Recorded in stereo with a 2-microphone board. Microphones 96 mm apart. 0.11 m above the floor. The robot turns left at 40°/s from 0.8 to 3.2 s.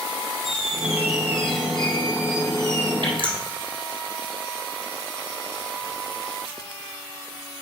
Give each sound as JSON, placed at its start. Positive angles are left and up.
{"t": 0.4, "sound": "a squeak", "azimuth_deg": 100, "distance_m": 2.0}
{"t": 3.0, "sound": "dripping", "side_deg": -50, "distance_m": 3.0}